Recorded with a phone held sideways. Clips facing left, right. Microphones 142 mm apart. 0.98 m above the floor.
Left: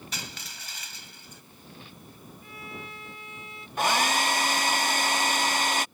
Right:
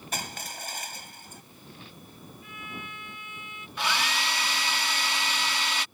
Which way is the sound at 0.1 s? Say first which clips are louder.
Right 5 dB; 50° right (ahead or behind).